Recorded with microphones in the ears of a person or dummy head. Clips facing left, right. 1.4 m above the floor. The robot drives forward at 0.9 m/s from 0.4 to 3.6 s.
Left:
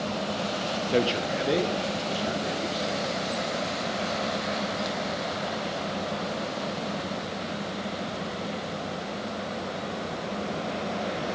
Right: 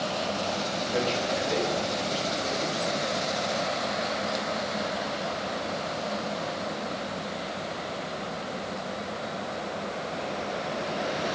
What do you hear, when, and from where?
0.9 s a man speaking: 60° left (ahead or behind), 1.0 m; by 3.4 s 20° left (ahead or behind), 3 m